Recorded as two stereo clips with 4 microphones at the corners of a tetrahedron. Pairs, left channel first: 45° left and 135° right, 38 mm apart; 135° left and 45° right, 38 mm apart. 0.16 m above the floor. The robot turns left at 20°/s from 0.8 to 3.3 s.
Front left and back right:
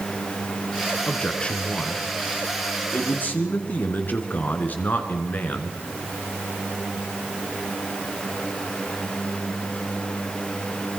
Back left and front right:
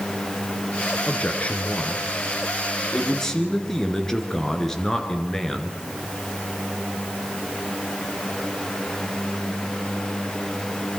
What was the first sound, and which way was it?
A man speaking, 105° left.